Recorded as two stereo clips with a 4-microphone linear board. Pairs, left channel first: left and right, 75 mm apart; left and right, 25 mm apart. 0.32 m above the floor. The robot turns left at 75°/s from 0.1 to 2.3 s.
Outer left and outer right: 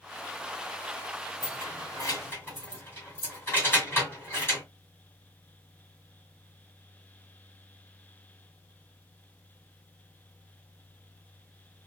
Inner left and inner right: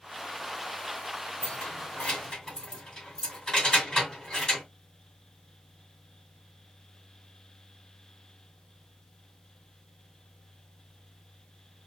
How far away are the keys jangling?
About 1.9 m.